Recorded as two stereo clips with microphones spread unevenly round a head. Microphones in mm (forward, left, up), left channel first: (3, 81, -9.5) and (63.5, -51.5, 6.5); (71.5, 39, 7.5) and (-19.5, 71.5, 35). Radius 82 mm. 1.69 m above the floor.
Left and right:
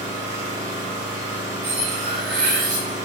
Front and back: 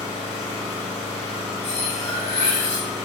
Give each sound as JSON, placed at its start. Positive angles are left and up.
{"t": 0.0, "sound": "an engine running", "azimuth_deg": -115, "distance_m": 1.3}
{"t": 1.6, "sound": "cutlery clinking", "azimuth_deg": -75, "distance_m": 2.0}